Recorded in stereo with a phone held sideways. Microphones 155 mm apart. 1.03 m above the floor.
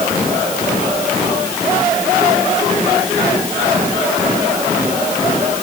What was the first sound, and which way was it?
Only background noise.